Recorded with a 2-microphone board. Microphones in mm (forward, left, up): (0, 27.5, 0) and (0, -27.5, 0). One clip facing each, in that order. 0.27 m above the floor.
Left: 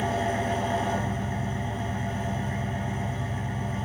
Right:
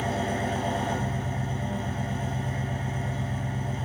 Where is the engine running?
35° left (ahead or behind), 0.7 m.